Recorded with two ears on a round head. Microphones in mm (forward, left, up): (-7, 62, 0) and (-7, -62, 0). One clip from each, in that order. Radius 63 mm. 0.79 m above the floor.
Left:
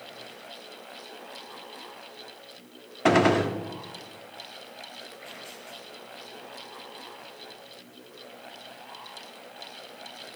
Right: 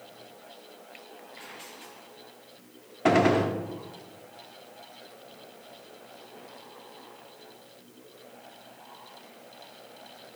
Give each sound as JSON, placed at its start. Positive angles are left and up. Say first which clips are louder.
{"t": 3.0, "sound": "a gunshot", "louder": "left 1 dB", "side_deg": 25, "distance_m": 0.6}